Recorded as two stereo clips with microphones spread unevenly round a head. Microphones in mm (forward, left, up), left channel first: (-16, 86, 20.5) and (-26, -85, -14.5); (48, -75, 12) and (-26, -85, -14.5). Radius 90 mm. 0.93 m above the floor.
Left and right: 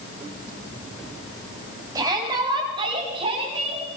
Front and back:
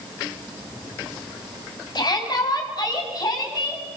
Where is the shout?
20° right, 7 m; by 3.8 s 30° right, 9.5 m.